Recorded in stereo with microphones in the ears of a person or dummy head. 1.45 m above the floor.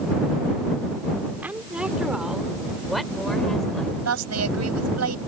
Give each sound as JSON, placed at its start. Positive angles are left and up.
{"t": 1.4, "sound": "a woman speaking", "side_deg": -10}
{"t": 4.0, "sound": "a woman speaking", "side_deg": -85}